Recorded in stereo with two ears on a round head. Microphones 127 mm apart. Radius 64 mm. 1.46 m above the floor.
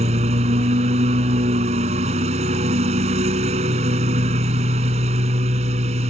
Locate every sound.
0.0 s a lawn mower: 50° right (ahead or behind)